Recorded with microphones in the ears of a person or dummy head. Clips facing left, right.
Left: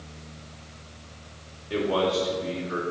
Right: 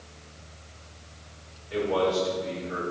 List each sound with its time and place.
1.7 s a man speaking: 60° left (ahead or behind), 3.5 m